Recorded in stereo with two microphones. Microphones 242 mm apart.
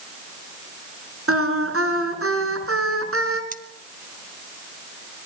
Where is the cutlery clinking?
35° right (ahead or behind), 1.4 m.